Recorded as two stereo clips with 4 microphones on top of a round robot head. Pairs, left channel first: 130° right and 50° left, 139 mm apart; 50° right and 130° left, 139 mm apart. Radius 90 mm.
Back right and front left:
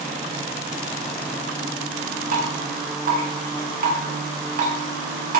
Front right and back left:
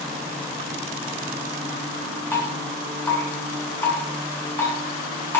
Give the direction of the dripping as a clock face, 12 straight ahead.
11 o'clock.